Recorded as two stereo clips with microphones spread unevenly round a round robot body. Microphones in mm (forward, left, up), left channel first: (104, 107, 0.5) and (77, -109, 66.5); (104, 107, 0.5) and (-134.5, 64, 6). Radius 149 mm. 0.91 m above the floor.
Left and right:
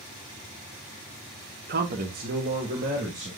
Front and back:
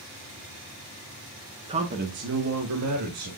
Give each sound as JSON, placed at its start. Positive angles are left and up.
{"t": 1.7, "sound": "a man speaking", "azimuth_deg": -125, "distance_m": 0.9}